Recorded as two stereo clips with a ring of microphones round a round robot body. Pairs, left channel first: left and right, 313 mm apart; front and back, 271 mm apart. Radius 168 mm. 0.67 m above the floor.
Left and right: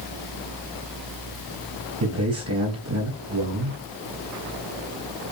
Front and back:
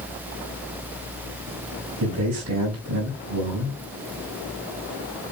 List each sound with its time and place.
2.0 s a man speaking: 135° right, 3.5 m